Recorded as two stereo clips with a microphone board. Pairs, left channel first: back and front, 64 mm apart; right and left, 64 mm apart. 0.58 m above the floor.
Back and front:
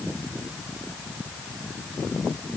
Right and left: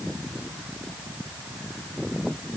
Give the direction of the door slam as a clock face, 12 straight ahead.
No door slam in this recording.